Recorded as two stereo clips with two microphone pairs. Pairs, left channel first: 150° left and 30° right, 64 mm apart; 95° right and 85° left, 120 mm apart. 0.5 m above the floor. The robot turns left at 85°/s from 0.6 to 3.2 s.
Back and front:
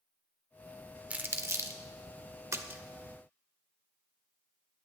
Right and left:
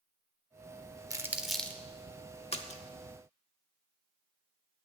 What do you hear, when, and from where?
1.1 s crumpling: 30° left, 0.9 m; by 1.8 s 30° right, 0.9 m
2.5 s a splash: 65° right, 0.8 m; by 2.8 s 90° right, 0.8 m